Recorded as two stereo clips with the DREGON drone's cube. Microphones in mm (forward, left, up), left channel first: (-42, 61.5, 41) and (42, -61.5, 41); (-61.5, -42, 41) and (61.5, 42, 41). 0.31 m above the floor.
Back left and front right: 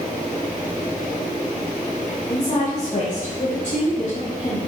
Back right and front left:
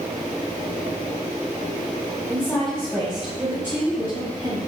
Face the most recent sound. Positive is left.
turn(degrees=95)